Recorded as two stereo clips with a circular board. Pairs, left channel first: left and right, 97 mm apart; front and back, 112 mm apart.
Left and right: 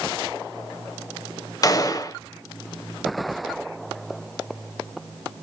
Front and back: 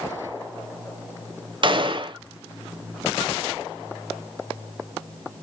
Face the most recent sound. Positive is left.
turn(degrees=140)